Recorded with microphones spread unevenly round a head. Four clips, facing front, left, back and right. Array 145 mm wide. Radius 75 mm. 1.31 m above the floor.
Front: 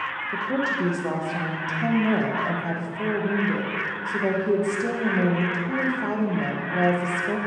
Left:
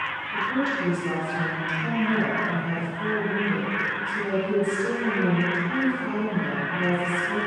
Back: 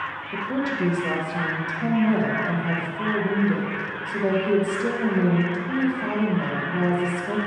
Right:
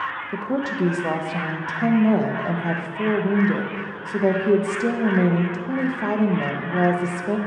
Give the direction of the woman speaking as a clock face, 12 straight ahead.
3 o'clock.